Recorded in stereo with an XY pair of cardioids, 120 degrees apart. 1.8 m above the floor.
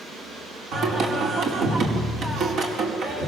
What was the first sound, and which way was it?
Singing, 55° right.